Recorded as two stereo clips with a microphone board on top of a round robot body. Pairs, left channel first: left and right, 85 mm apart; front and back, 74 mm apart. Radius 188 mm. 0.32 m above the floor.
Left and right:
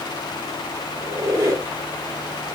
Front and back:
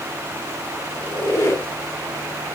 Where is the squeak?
45° right, 1.1 m.